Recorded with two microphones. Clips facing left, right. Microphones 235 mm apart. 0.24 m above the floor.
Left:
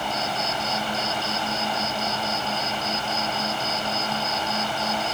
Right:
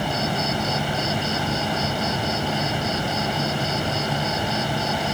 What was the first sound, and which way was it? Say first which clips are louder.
An insect: right 5 dB; 50° right (ahead or behind).